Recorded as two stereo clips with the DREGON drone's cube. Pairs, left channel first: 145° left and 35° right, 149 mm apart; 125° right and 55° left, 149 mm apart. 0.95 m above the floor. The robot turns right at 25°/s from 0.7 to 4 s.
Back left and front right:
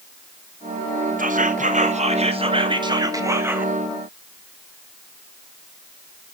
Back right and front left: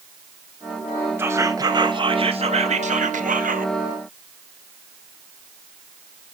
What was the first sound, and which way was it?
Whispering, 20° right.